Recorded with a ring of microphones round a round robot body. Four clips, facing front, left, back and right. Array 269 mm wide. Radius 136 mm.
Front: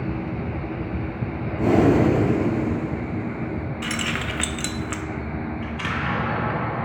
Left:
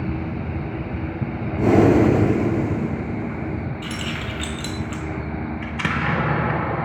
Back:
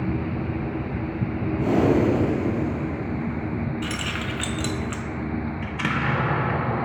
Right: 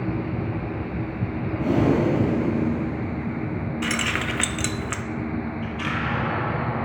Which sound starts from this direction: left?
An explosion, at 5.6 s.